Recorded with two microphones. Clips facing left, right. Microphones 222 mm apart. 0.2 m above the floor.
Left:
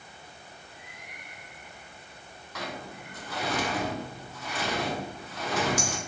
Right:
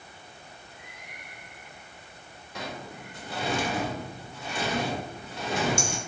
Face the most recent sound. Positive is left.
turn(degrees=-25)  # may be behind; listen again after turning